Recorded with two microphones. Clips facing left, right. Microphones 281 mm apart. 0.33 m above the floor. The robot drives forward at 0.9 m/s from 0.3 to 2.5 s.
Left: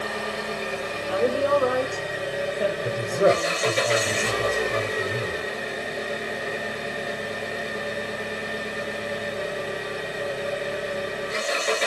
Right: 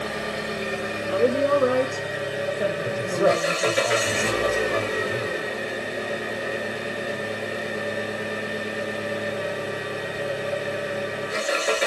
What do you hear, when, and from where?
0.0 s an engine running: 20° right (ahead or behind), 1.7 m; by 11.9 s 10° right (ahead or behind), 3.5 m
1.1 s a woman speaking: 25° right (ahead or behind), 1.1 m; by 3.8 s 20° right (ahead or behind), 1.3 m
2.8 s a man speaking: 30° left (ahead or behind), 1.1 m